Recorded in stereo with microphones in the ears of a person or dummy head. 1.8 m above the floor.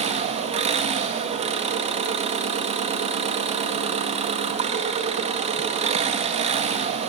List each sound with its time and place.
0.0 s an engine running: 35° right (ahead or behind), 1.6 m